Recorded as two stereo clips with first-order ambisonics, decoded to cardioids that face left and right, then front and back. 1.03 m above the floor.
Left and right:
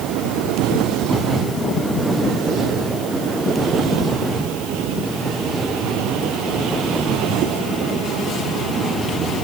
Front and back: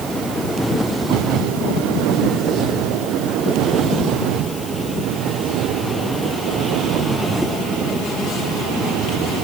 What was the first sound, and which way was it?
Only background noise.